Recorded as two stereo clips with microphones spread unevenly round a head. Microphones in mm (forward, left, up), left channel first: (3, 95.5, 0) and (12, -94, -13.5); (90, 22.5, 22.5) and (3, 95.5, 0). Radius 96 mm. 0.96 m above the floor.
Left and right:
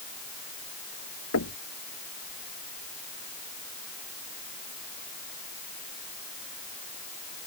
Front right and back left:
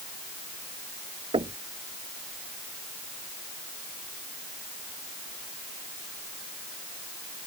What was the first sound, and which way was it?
Knocking, 100° left.